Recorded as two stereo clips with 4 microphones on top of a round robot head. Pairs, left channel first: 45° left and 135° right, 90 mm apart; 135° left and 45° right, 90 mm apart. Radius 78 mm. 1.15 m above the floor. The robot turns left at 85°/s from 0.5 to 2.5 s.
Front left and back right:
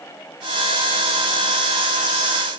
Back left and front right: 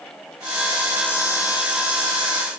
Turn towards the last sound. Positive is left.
No sound to turn to.